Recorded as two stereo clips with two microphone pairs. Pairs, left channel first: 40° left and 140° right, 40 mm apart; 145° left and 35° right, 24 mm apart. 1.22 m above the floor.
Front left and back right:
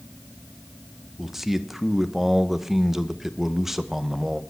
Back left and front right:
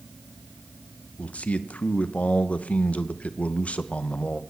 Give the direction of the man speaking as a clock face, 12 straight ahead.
7 o'clock.